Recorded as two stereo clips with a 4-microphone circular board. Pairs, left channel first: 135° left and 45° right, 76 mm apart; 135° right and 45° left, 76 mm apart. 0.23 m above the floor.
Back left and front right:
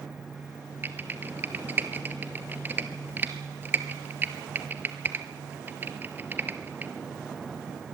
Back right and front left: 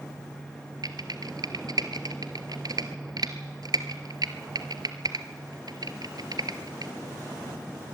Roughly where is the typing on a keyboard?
Ahead.